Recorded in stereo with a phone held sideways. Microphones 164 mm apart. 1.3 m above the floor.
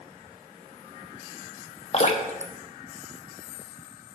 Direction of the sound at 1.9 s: 45° left (ahead or behind).